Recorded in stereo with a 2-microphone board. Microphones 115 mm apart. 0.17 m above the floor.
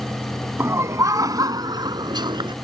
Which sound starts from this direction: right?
Laughter, at 0.6 s.